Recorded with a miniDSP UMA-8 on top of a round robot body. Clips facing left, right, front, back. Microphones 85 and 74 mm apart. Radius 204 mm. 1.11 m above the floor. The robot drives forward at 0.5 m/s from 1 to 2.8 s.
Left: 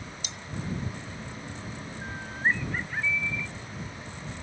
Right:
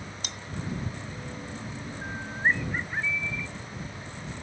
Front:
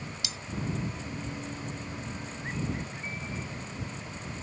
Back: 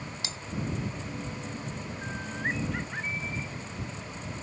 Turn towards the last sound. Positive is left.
turn(degrees=-170)